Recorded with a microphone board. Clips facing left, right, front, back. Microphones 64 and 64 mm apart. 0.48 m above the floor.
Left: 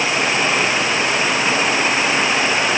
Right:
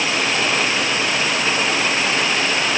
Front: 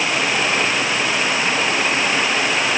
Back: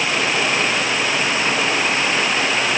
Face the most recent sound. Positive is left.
No sound to turn to.